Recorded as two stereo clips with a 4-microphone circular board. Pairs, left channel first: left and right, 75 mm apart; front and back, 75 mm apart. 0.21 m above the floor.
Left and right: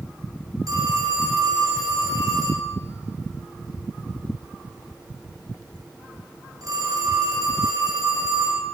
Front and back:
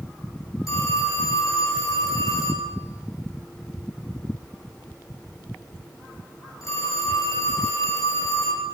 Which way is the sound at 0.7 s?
45° right.